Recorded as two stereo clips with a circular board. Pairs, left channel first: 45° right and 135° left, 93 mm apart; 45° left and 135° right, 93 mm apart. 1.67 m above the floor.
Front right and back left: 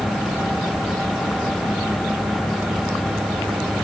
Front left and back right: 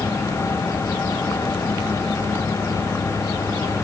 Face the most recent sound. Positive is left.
No sound to turn to.